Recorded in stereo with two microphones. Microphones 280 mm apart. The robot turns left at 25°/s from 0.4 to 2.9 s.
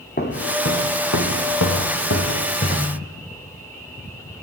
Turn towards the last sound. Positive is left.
turn(degrees=25)  # may be behind; listen again after turning